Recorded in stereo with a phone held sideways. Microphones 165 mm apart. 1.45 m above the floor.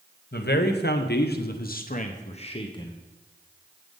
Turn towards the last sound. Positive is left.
turn(degrees=20)  # may be behind; listen again after turning